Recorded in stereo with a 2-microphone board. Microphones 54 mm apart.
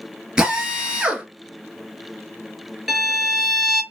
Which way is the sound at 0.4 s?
20° right (ahead or behind).